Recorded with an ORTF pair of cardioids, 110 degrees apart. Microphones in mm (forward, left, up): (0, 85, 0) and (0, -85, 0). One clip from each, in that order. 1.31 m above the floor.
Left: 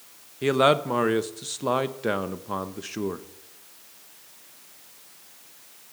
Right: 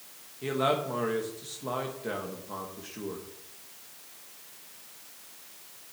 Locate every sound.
0.4 s a man speaking: 55° left, 1.1 m